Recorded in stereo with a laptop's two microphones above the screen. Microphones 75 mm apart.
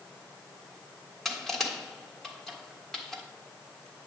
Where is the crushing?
Centre (ahead or behind), 1.5 m.